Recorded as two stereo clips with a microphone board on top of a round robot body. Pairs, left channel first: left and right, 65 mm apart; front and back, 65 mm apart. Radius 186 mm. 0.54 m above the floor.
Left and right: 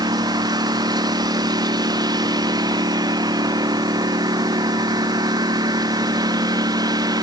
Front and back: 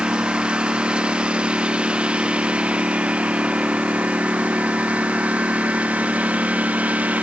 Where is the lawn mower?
105° right; by 7.2 s 110° right.